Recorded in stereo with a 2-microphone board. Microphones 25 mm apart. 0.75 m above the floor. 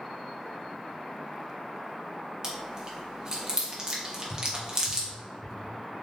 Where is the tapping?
75° left (ahead or behind), 1.1 m.